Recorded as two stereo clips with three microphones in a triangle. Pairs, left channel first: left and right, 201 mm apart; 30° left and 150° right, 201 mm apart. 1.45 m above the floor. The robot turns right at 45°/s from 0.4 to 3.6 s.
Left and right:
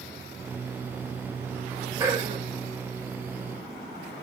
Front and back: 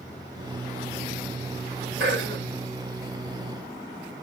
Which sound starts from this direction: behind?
Throat clearing, at 2.0 s.